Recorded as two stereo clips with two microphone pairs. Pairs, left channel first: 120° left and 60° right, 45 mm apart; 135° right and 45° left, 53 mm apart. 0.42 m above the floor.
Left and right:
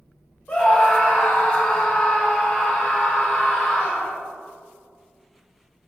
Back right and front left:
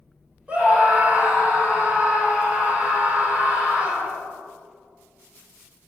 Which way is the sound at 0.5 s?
90° left.